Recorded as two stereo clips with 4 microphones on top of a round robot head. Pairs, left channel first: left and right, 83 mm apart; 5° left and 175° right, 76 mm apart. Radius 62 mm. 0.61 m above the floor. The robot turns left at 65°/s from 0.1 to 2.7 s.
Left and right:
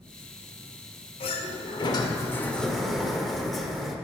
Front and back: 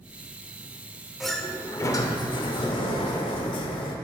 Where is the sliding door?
100° left, 0.9 m; by 4.0 s straight ahead, 0.9 m.